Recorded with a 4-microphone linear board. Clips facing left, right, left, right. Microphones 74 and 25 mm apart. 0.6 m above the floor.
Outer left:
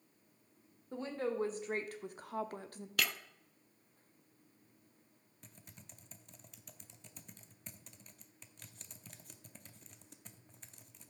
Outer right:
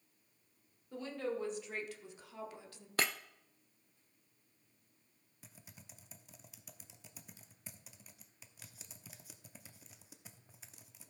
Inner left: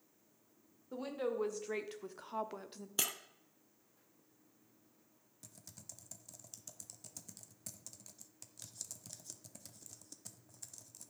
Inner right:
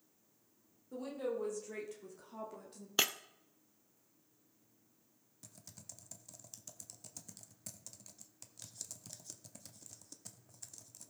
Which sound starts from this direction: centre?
Typing on a keyboard, at 5.4 s.